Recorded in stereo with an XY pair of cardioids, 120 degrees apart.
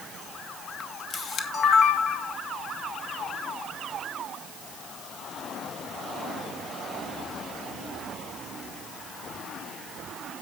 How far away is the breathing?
I don't hear breathing.